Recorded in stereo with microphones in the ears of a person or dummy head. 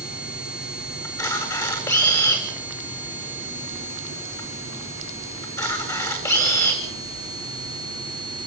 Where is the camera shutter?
20° left (ahead or behind), 8.5 m.